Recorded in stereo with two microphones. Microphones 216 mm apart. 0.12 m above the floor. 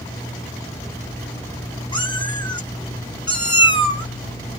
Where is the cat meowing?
20° left (ahead or behind), 0.9 m.